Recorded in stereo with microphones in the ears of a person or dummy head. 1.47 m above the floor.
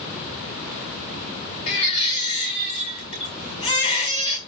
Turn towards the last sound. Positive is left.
turn(degrees=30)  # may be behind; listen again after turning